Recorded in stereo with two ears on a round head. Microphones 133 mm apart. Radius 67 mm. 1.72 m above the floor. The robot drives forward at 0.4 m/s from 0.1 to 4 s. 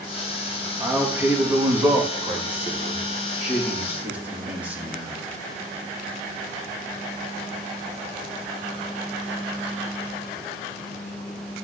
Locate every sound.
0.8 s a man speaking: 15° right (ahead or behind), 3 m; by 5.3 s 10° right (ahead or behind), 4 m